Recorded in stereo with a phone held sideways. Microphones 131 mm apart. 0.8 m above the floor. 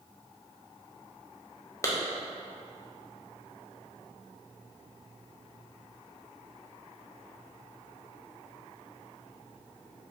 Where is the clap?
25° left (ahead or behind), 0.7 m.